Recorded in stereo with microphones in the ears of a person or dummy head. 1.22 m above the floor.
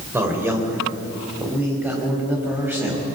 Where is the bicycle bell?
No bicycle bell in this recording.